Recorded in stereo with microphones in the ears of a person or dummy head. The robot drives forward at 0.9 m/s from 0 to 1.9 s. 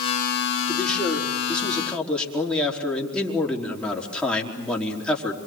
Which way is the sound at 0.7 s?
5° left (ahead or behind).